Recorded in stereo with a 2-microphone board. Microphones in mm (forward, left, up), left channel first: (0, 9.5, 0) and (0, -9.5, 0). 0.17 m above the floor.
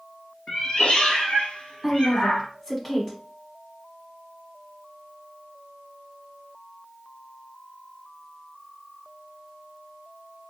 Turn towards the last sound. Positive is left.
turn(degrees=20)  # may be behind; listen again after turning